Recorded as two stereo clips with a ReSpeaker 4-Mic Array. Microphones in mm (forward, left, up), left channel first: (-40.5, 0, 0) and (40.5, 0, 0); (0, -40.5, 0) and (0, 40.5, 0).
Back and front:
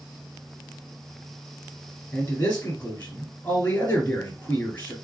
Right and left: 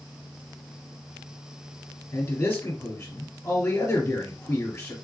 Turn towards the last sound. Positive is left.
turn(degrees=-135)